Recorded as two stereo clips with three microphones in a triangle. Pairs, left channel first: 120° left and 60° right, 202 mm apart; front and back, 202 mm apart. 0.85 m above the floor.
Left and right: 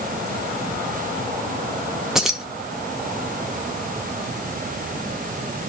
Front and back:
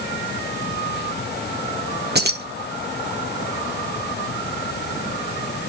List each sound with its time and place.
2.1 s keys jangling: 145° right, 0.5 m